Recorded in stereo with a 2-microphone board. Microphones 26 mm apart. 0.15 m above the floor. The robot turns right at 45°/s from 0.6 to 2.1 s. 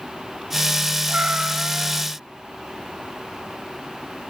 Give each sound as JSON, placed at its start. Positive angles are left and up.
{"t": 1.1, "sound": "a cat meowing", "azimuth_deg": -130, "distance_m": 1.7}